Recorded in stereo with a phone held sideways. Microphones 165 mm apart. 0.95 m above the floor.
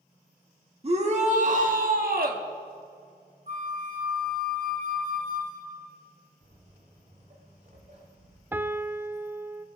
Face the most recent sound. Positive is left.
turn(degrees=-10)  # may be behind; listen again after turning